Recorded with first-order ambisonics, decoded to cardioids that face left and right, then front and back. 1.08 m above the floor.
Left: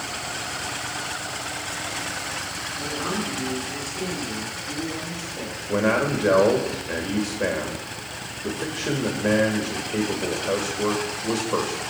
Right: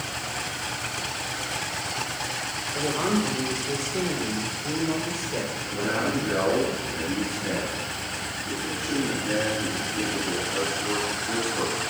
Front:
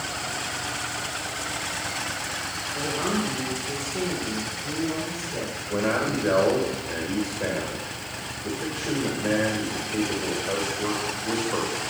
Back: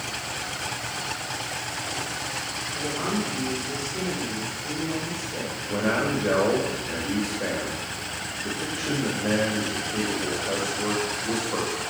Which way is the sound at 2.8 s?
90° right.